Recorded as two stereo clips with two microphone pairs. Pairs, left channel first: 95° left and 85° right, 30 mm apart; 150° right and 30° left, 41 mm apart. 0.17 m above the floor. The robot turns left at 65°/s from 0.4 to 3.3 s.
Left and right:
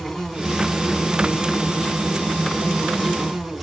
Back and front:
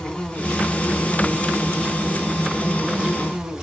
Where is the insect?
Straight behind, 1.6 m; by 3.6 s 10° right, 1.6 m.